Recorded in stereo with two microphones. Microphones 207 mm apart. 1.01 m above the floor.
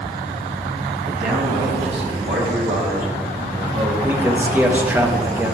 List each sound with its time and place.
1.1 s a man speaking: 45° right (ahead or behind), 1.6 m; by 3.9 s 75° right (ahead or behind), 3.5 m
4.0 s a man speaking: 10° right (ahead or behind), 0.9 m